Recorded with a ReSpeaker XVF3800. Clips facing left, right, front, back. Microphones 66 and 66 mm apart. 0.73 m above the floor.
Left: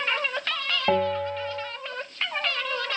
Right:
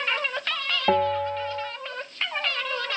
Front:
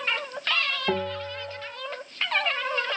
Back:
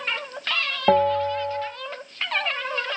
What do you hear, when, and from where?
0.9 s a bell: 175° right, 0.8 m